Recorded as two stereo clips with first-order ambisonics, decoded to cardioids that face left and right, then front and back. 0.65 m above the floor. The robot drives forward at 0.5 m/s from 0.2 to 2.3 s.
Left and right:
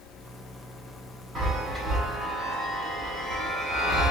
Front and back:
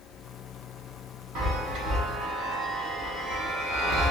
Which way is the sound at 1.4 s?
150° right.